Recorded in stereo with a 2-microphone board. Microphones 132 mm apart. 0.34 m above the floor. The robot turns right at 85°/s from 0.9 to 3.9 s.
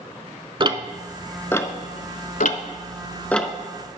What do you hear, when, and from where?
0.6 s ticking: 35° right (ahead or behind), 0.6 m; by 3.5 s 5° right (ahead or behind), 0.6 m